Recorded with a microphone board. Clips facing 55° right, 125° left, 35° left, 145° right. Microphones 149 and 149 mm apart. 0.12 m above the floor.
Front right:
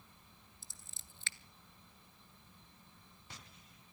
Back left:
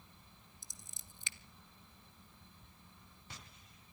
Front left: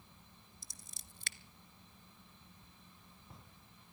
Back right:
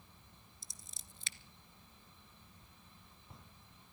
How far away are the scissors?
About 0.6 m.